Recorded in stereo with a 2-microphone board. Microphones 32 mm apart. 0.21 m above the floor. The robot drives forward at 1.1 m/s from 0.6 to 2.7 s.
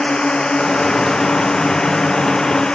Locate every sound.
0.0 s a drone: 25° left (ahead or behind)